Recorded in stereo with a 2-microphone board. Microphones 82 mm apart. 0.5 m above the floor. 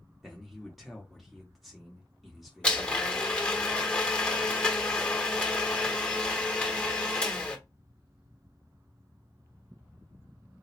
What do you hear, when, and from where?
0.2 s a man speaking: centre (ahead or behind), 0.9 m
2.6 s a blender: 10° left (ahead or behind), 1.0 m